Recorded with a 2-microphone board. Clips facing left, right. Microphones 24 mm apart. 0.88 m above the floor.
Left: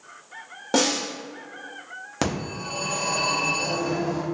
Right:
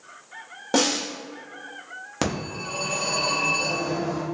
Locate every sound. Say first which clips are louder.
0.7 s a snare drum: even; 5° right (ahead or behind), 1.2 m
2.2 s a phone ringing: even; 5° right (ahead or behind), 0.9 m